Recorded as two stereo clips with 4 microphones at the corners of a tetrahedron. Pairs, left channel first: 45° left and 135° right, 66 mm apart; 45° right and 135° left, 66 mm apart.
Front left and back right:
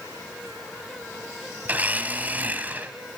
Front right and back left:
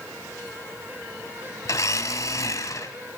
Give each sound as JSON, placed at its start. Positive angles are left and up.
{"t": 1.6, "sound": "a blender", "azimuth_deg": -70, "distance_m": 1.5}